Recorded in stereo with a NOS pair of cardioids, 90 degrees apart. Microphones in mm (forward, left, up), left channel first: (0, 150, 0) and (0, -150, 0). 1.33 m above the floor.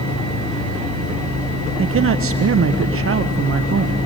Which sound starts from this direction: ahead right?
A man speaking, at 1.8 s.